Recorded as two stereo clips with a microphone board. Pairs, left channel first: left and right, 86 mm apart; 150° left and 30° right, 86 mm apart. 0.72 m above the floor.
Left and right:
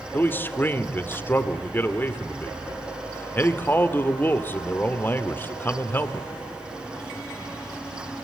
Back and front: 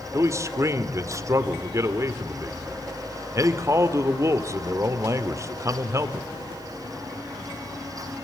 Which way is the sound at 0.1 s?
25° left.